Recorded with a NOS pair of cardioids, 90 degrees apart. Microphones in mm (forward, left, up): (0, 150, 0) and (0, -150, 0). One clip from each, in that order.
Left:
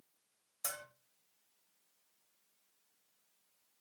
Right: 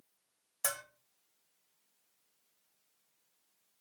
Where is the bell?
40° right, 0.7 m.